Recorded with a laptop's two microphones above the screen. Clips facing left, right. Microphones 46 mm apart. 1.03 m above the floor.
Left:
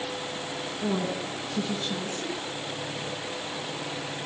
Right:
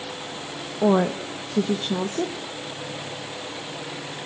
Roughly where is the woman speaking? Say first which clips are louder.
Right 10 dB; right.